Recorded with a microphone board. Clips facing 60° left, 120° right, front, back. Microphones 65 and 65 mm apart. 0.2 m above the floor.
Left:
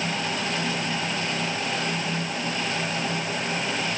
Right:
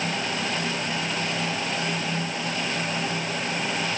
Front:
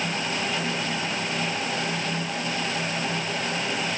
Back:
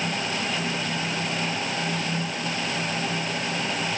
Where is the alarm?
No alarm in this recording.